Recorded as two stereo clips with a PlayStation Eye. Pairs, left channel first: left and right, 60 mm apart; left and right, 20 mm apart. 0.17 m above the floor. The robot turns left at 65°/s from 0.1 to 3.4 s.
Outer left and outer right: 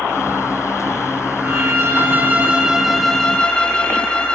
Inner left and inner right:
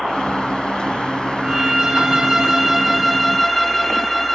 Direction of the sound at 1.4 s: 80° right.